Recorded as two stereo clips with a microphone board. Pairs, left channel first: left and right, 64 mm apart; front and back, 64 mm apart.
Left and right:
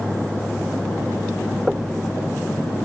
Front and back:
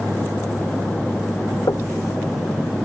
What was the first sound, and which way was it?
Knocking, 5° right.